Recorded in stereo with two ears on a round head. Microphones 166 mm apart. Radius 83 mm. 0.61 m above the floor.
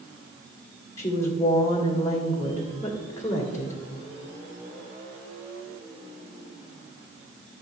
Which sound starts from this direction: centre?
A woman speaking, at 1.0 s.